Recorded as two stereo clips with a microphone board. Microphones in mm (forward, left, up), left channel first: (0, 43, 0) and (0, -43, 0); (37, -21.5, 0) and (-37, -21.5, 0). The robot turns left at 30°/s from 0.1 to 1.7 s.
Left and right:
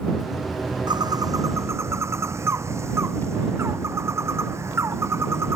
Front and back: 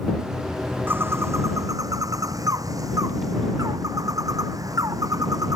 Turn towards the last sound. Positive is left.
turn(degrees=-145)